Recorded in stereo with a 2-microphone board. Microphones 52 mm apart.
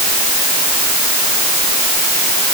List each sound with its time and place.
Only background noise.